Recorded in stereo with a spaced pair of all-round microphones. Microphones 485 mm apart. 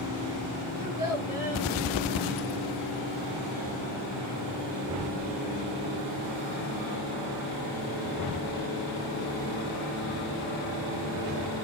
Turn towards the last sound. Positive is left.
turn(degrees=-15)  # may be behind; listen again after turning